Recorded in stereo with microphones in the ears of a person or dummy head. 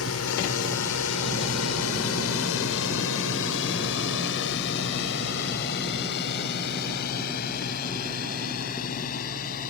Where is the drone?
75° left (ahead or behind); by 9.7 s 45° left (ahead or behind).